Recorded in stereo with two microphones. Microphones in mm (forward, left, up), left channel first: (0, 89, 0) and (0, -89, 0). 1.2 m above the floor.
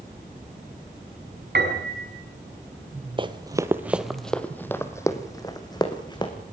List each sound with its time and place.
1.6 s a piano: 75° right (ahead or behind), 4.5 m
3.2 s running footsteps: 30° right (ahead or behind), 1.3 m; by 6.3 s 25° left (ahead or behind), 3.5 m